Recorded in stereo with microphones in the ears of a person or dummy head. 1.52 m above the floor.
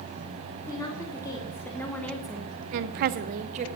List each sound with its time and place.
0.7 s a woman speaking: 15° left (ahead or behind), 3.5 m; by 3.7 s 35° right (ahead or behind), 1.4 m